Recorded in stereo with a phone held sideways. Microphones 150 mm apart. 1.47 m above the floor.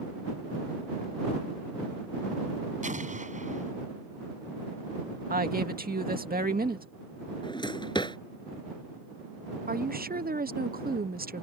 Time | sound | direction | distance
2.8 | an explosion | 55° right (ahead or behind) | ?
5.3 | a woman speaking | 75° right (ahead or behind) | ?
7.4 | a drawer | 30° left (ahead or behind) | ?
9.7 | a woman speaking | 75° right (ahead or behind) | ?